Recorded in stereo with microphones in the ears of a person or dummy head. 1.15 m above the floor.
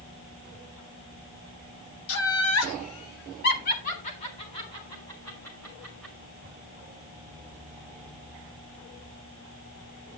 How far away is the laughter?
About 1.9 m.